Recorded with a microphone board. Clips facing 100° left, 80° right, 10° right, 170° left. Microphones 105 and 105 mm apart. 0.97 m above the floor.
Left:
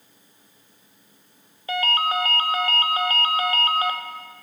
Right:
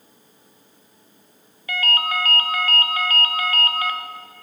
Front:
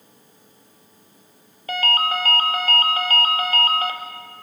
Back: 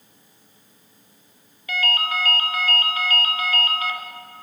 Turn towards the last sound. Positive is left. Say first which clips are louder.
# left 2 dB, front 3 dB
turn(degrees=35)